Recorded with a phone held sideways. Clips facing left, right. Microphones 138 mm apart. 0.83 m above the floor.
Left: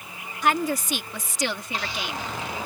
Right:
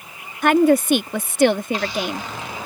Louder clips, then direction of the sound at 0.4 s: Right 10 dB; 60° right (ahead or behind).